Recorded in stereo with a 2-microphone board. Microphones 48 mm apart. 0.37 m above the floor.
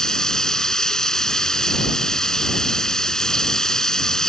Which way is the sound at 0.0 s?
15° left (ahead or behind).